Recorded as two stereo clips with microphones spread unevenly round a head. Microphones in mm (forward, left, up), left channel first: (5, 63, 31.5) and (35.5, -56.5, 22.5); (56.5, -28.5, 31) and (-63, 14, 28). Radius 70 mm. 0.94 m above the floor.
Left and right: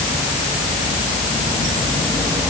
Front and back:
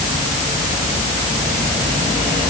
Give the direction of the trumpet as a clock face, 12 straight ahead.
I don't hear a trumpet.